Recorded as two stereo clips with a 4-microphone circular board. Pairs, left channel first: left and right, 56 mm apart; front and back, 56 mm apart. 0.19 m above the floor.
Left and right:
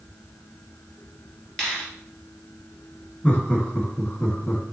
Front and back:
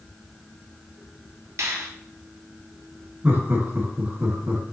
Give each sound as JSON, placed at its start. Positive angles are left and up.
{"t": 1.6, "sound": "a finger snap", "azimuth_deg": 160, "distance_m": 1.8}
{"t": 3.2, "sound": "laughter", "azimuth_deg": 145, "distance_m": 1.4}